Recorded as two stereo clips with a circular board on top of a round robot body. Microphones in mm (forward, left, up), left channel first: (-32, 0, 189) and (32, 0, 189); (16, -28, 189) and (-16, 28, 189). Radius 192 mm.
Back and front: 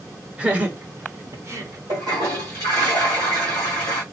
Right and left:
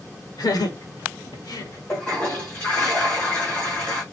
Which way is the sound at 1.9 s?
Straight ahead.